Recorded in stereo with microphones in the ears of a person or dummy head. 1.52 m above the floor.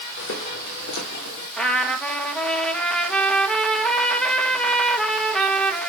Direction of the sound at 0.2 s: 75° left (ahead or behind).